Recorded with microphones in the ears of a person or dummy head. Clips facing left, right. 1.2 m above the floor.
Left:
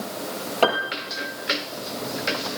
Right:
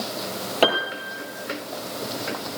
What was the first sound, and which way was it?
A piano, 10° right (ahead or behind).